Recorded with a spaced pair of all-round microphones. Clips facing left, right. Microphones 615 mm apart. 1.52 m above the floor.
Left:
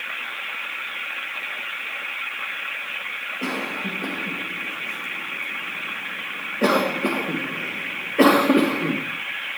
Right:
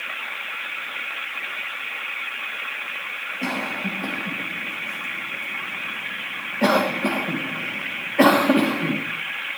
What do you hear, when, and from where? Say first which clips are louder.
3.4 s a cough: even; 20° right (ahead or behind), 1.7 m